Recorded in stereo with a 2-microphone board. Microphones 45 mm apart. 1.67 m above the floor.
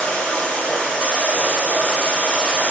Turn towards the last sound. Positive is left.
turn(degrees=30)  # may be behind; listen again after turning